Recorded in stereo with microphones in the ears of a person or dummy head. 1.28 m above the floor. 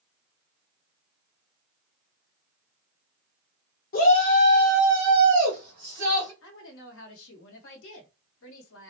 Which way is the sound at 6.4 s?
80° left.